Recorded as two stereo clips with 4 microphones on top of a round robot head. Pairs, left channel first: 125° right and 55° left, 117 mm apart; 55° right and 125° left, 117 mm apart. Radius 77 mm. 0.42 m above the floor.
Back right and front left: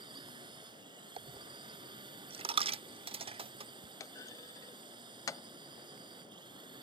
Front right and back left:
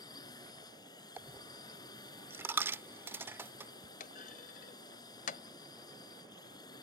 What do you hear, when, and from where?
0.0 s a drone: 5° left
1.2 s a dropped coin: 60° left
4.0 s a clunk: 60° right